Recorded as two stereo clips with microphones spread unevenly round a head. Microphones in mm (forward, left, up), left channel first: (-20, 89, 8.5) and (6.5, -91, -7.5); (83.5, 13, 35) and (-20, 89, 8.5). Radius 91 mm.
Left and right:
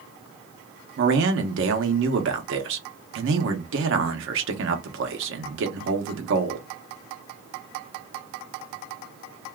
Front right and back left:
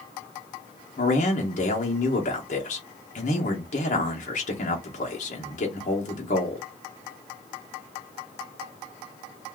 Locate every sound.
1.0 s a man speaking: 80° right, 0.9 m